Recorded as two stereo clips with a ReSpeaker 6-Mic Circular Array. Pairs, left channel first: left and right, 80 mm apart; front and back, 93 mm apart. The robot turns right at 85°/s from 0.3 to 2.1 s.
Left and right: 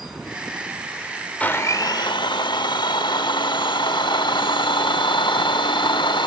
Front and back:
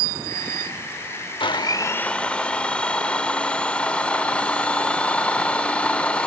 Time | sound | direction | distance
1.4 | a blender | 20° left | 0.7 m